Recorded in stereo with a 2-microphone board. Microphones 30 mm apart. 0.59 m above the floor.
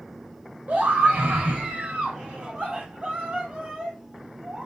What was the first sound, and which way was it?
A scream, 60° right (ahead or behind).